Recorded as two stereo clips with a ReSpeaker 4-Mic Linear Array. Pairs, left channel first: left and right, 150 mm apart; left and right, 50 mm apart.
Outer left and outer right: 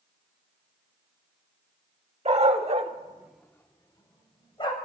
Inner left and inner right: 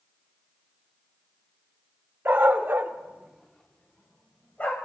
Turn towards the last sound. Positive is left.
turn(degrees=35)  # may be behind; listen again after turning